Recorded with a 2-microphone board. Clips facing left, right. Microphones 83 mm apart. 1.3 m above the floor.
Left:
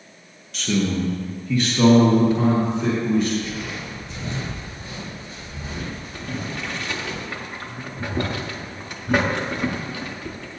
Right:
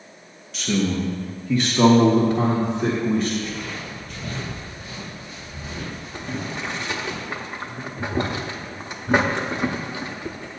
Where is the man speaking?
Centre (ahead or behind), 1.0 m; by 3.3 s 55° right (ahead or behind), 2.0 m.